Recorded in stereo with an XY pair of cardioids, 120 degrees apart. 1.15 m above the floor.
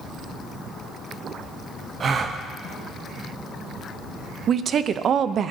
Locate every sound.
2.0 s a gasp: 40° right, 0.9 m
4.5 s a woman speaking: 45° right, 0.6 m